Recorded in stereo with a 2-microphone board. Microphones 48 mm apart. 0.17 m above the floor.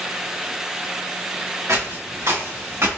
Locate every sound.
1.7 s footsteps: 70° right (ahead or behind), 1.9 m; by 3.0 s 50° right (ahead or behind), 1.5 m